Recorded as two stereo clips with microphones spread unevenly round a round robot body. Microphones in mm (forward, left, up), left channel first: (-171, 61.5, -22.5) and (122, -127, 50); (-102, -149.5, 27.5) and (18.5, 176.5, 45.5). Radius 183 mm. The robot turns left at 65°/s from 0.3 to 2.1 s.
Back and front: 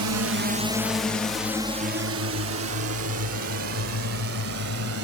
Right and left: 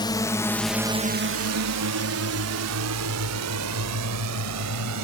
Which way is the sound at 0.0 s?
45° right.